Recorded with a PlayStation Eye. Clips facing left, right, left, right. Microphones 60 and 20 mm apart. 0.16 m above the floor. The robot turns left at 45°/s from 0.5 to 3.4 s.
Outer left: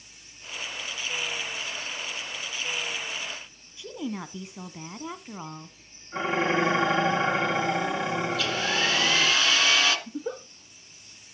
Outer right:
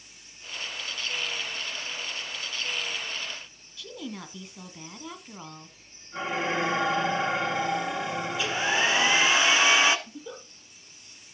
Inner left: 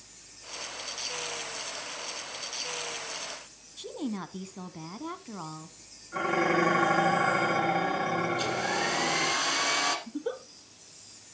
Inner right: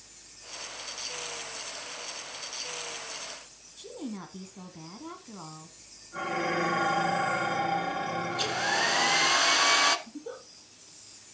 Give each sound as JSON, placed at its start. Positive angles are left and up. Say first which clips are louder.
{"t": 3.8, "sound": "a woman speaking", "louder": "outer left 5 dB, inner left 4 dB", "side_deg": 20, "distance_m": 1.0}
{"t": 6.1, "sound": "dishes clattering", "louder": "outer left 3 dB, inner left 4 dB", "side_deg": 30, "distance_m": 7.0}
{"t": 8.3, "sound": "a hair dryer", "louder": "even, inner right 1 dB", "side_deg": -20, "distance_m": 1.1}
{"t": 10.1, "sound": "a giggle", "louder": "outer left 8 dB, inner left 6 dB", "side_deg": 40, "distance_m": 1.6}